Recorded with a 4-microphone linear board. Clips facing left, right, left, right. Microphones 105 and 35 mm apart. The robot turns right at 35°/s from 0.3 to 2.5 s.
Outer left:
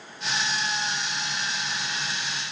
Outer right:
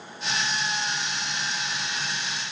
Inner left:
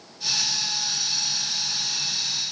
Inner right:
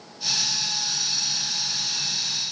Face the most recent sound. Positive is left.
No sound to turn to.